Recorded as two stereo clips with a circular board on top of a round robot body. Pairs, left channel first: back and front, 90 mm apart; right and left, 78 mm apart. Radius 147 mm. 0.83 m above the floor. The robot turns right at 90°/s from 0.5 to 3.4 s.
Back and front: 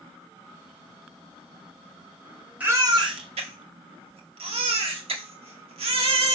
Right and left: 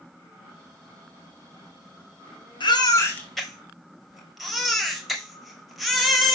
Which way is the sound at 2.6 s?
70° right.